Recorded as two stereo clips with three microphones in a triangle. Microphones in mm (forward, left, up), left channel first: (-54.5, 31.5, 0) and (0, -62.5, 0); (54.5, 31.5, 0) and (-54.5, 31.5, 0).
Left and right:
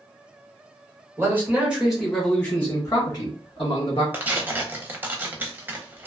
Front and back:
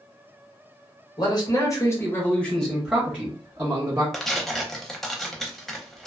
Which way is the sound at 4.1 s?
85° right.